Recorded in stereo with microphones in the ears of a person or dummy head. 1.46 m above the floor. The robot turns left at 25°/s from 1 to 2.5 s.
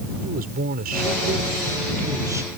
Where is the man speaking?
130° right; by 2.6 s 170° right.